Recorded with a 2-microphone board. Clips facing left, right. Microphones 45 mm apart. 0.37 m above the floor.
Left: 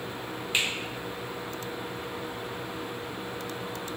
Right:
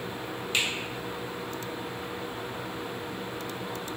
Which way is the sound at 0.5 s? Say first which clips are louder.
Even; 20° left (ahead or behind).